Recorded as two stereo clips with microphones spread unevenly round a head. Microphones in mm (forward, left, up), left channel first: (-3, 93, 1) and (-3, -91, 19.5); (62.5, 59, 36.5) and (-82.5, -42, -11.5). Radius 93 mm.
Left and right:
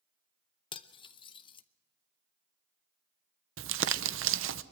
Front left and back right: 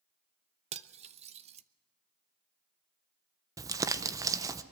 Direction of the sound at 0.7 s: 155° left.